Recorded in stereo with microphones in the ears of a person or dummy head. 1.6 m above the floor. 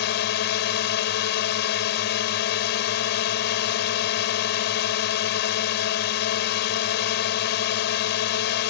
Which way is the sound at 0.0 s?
55° left (ahead or behind).